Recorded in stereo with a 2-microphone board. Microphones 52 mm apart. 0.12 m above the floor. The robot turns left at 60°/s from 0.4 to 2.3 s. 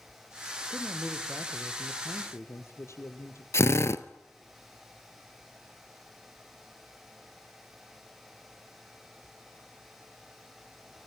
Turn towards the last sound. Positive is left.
turn(degrees=55)  # may be behind; listen again after turning